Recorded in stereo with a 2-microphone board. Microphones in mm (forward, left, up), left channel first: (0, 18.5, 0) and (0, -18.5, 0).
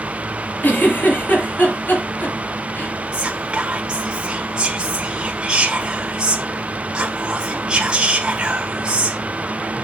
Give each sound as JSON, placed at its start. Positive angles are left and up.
{"t": 0.6, "sound": "a giggle", "side_deg": 55, "distance_m": 3.5}
{"t": 3.1, "sound": "whispering", "side_deg": -25, "distance_m": 1.5}